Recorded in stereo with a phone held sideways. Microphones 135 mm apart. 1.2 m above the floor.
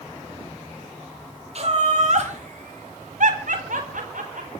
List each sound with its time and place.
1.6 s laughter: 55° right (ahead or behind), 4.5 m; by 4.5 s 80° right, 5 m